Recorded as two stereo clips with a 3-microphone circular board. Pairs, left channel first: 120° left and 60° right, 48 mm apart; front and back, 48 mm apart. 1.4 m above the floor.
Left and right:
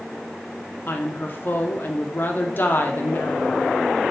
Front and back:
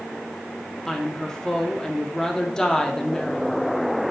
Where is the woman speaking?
75° left, 1.1 m.